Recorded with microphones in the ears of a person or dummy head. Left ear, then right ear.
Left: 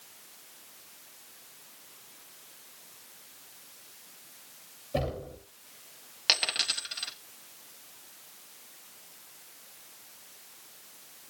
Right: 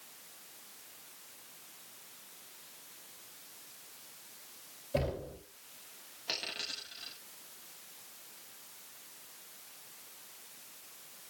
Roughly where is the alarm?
No alarm in this recording.